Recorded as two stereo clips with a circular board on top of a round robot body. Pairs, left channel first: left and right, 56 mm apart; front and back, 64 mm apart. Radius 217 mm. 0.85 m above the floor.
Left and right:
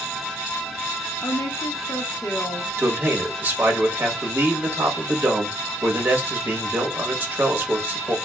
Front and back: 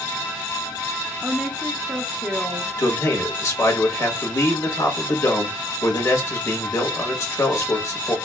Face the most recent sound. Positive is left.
turn(degrees=-35)